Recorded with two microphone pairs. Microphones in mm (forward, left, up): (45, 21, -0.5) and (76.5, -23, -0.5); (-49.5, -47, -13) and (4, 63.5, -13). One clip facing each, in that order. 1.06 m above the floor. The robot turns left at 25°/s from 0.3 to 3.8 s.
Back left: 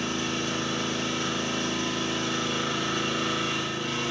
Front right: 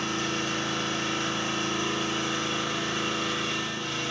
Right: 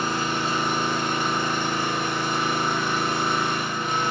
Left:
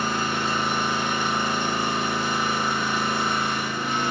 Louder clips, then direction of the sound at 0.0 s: Even, even; 65° right.